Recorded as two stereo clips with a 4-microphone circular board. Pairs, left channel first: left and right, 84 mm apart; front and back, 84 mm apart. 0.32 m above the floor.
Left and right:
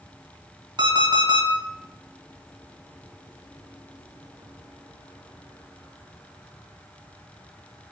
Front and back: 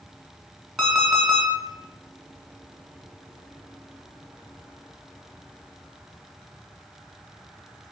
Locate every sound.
0.8 s an alarm clock: 90° right, 1.1 m